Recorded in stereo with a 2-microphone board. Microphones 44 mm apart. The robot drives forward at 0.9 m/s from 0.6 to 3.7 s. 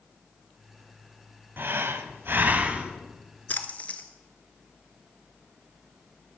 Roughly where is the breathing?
Right.